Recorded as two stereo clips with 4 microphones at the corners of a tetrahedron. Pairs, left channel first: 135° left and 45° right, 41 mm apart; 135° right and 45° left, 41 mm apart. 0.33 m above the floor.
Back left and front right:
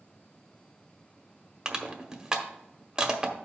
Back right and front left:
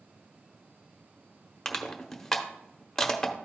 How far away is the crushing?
About 0.8 m.